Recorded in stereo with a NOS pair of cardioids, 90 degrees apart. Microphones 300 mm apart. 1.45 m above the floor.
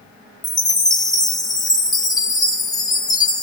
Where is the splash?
I don't hear a splash.